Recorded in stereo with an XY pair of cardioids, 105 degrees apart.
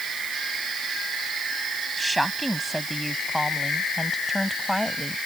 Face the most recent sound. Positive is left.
turn(degrees=5)